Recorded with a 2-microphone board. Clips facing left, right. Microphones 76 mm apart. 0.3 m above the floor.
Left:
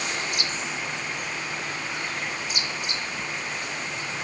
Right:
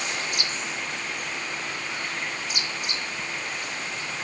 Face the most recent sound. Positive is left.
No sound to turn to.